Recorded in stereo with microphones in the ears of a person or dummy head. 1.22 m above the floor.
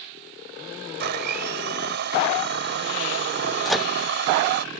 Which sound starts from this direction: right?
A blender, at 1.0 s.